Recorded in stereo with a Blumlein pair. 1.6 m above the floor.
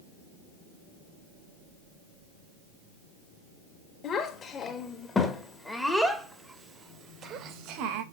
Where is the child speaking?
25° left, 2.5 m; by 8.0 s 45° right, 1.6 m.